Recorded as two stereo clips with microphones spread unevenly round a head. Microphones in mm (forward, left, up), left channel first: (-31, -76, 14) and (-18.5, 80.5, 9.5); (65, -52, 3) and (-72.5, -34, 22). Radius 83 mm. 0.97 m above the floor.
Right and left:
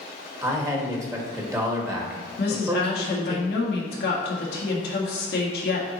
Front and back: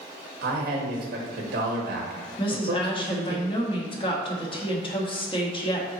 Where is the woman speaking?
60° right, 1.5 m.